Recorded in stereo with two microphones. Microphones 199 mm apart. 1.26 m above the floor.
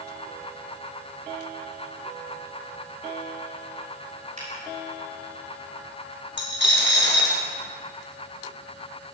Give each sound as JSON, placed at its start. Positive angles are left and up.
{"t": 4.4, "sound": "a finger snap", "side_deg": -35, "distance_m": 6.5}
{"t": 6.4, "sound": "a dropped coin", "side_deg": 65, "distance_m": 3.0}